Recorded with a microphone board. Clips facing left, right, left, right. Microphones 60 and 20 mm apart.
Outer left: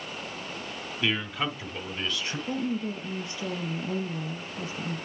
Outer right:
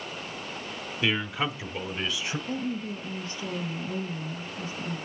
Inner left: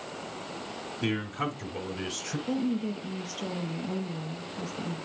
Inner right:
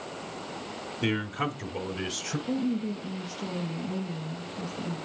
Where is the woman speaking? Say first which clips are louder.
Outer left 4 dB, even; 70° left (ahead or behind), 4.5 m.